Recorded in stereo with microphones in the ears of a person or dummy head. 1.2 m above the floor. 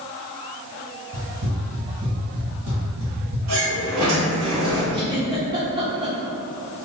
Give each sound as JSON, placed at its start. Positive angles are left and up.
{"t": 1.1, "sound": "running footsteps", "side_deg": -35, "distance_m": 1.9}
{"t": 3.5, "sound": "a sliding door", "side_deg": -70, "distance_m": 1.7}
{"t": 4.9, "sound": "a giggle", "side_deg": -25, "distance_m": 1.0}